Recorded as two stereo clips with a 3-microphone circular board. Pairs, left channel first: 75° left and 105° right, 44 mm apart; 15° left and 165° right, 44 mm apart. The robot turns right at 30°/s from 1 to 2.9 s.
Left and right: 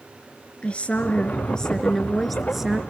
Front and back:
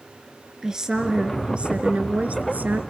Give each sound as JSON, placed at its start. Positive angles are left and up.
{"t": 0.6, "sound": "a woman speaking", "azimuth_deg": 125, "distance_m": 1.5}